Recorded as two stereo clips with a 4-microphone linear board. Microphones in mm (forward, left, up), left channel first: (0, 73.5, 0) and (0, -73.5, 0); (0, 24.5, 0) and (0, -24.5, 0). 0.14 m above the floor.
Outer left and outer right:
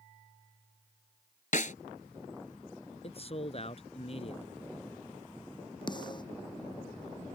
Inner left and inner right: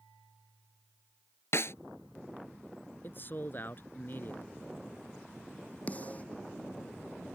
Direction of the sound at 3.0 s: 45° left (ahead or behind).